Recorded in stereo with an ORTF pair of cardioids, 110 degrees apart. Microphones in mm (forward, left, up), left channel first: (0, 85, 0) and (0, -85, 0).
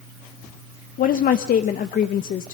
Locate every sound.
1.0 s a woman speaking: 55° left, 0.9 m